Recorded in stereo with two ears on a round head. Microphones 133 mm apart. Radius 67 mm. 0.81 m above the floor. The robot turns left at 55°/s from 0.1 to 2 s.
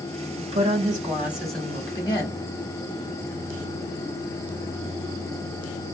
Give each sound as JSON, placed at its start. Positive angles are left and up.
{"t": 0.4, "sound": "a woman speaking", "azimuth_deg": -120, "distance_m": 1.8}